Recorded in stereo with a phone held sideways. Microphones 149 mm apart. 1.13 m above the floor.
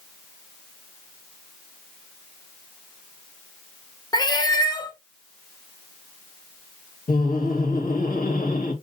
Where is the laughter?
80° left, 1.4 m.